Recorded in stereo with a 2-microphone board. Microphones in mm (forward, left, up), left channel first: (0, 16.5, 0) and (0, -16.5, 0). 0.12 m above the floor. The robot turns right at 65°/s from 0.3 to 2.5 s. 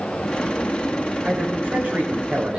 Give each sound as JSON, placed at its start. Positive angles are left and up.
{"t": 1.2, "sound": "a man speaking", "azimuth_deg": -115, "distance_m": 7.5}